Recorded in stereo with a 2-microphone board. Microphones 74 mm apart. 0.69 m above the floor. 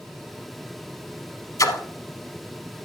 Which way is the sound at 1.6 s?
50° left (ahead or behind).